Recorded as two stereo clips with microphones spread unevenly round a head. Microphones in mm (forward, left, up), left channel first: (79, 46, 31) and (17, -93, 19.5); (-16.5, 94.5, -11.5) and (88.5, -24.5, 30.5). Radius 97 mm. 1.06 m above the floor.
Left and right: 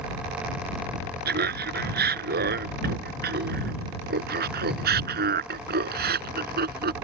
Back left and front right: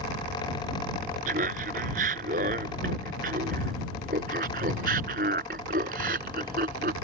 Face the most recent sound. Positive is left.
turn(degrees=-95)